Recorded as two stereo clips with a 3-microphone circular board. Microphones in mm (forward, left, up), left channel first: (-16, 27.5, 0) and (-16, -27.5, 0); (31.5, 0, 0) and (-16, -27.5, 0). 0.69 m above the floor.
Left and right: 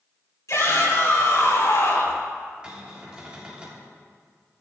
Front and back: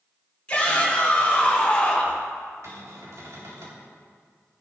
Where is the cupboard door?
160° right, 3.5 m.